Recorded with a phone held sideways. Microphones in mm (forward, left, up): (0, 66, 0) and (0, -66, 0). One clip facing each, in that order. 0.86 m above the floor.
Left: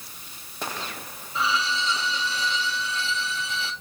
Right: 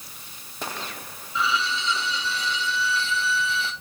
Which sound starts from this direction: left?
A violin, at 1.4 s.